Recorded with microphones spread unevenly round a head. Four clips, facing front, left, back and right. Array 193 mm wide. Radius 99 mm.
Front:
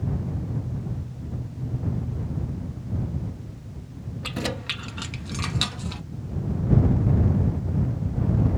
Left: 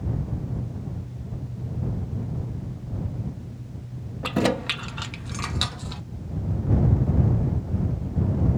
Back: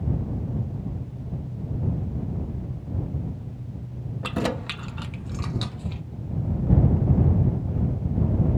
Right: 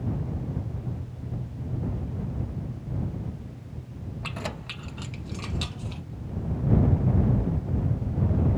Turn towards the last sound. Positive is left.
turn(degrees=25)